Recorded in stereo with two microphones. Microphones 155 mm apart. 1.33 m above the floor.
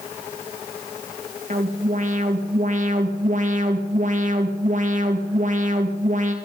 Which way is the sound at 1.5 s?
55° right (ahead or behind).